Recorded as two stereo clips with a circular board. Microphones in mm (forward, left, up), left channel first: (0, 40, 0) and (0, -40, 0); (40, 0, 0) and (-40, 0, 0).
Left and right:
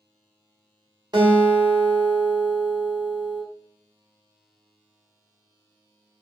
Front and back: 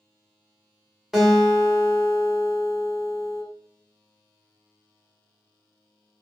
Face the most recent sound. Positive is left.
turn(degrees=-95)